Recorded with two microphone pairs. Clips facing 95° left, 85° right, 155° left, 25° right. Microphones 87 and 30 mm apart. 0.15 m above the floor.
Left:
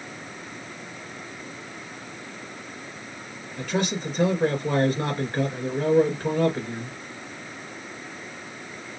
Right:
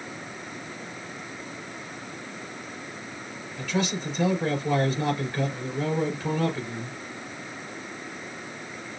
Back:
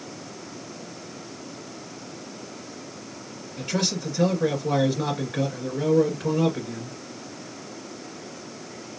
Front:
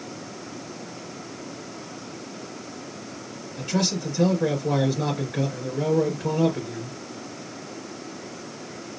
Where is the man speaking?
85° left, 2.5 m.